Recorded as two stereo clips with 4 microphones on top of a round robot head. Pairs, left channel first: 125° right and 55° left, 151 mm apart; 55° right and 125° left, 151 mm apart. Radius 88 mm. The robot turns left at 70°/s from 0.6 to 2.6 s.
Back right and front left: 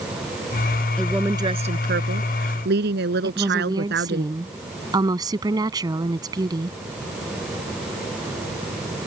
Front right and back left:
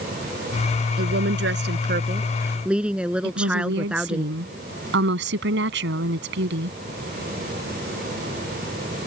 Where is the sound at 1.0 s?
155° left; by 4.2 s 40° left.